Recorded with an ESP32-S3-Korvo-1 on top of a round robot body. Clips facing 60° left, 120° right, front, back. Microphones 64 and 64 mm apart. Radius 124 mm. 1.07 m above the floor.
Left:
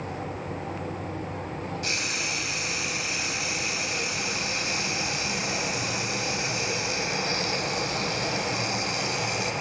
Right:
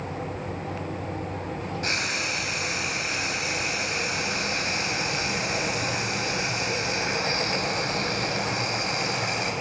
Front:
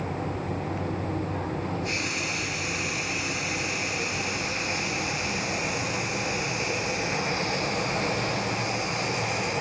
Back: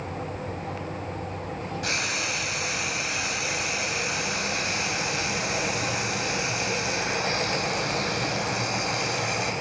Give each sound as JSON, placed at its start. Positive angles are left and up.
{"t": 1.8, "sound": "frying", "azimuth_deg": -170, "distance_m": 4.0}